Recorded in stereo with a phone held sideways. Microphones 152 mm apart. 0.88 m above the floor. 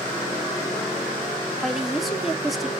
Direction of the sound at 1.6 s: Centre (ahead or behind).